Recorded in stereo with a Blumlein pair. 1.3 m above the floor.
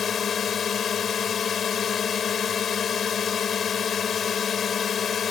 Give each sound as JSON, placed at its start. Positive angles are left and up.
{"t": 0.0, "sound": "a drone", "azimuth_deg": 20}